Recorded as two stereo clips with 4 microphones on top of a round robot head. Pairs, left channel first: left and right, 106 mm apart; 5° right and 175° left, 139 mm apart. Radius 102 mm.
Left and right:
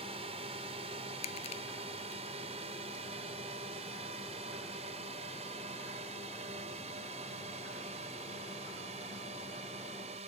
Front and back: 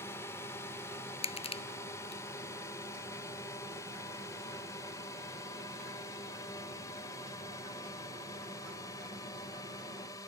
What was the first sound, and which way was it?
A drone, 75° right.